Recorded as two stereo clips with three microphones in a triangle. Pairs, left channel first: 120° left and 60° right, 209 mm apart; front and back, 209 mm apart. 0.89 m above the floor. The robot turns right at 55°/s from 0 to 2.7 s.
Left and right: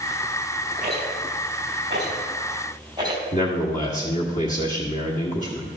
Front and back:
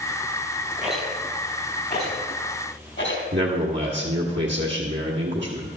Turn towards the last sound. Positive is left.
turn(degrees=165)